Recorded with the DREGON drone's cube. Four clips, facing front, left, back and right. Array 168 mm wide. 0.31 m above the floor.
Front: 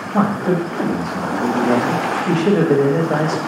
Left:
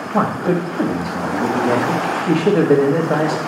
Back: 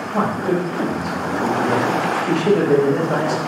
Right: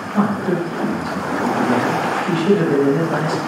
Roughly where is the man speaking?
Ahead left.